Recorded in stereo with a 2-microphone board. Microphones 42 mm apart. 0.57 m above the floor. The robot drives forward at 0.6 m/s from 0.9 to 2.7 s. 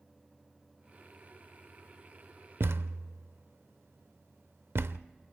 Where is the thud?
70° right (ahead or behind), 0.6 m; by 5.0 s 80° right, 0.6 m.